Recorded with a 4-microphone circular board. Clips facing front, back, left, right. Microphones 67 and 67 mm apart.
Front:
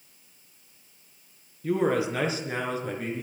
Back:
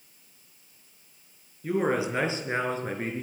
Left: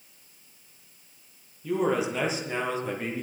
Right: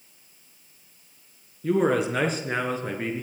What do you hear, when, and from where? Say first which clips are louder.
1.6 s a man speaking: front 1 dB, right 4 dB; 105° right, 4 m; by 3.2 s 140° right, 4 m